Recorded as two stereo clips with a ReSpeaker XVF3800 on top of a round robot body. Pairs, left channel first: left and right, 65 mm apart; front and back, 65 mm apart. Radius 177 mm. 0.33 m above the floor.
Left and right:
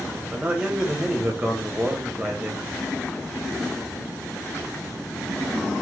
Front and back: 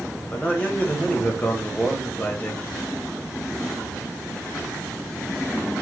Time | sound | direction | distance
0.3 | a man speaking | 35° right | 1.1 m